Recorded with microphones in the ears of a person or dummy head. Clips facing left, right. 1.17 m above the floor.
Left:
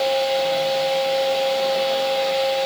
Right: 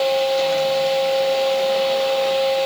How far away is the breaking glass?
No breaking glass in this recording.